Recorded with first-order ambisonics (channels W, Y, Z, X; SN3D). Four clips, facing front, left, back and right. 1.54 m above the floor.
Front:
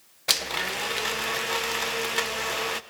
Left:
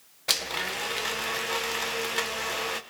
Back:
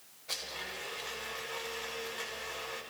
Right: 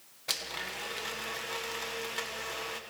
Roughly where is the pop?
I don't hear a pop.